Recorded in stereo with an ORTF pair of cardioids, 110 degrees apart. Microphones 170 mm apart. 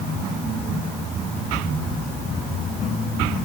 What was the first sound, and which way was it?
Only background noise.